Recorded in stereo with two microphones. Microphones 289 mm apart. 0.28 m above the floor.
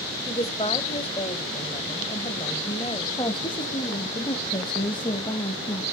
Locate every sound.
0.3 s a woman speaking: 20° left (ahead or behind), 1.6 m
3.2 s a woman speaking: 15° left (ahead or behind), 1.2 m